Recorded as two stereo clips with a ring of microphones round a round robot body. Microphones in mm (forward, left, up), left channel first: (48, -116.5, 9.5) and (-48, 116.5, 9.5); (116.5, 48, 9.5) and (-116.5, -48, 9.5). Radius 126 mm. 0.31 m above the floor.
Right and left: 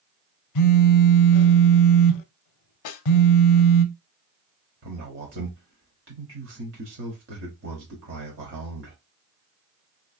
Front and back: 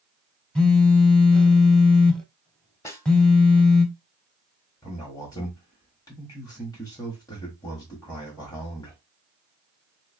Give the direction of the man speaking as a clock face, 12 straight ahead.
9 o'clock.